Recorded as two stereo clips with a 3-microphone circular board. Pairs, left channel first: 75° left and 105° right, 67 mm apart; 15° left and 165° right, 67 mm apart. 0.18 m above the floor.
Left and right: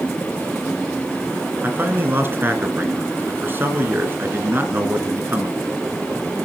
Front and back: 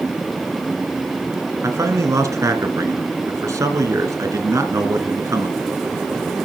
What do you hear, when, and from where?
1.6 s a man speaking: 155° right, 1.7 m